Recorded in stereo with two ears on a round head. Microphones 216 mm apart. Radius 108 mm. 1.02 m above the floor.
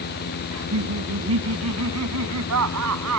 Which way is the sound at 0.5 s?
70° right (ahead or behind).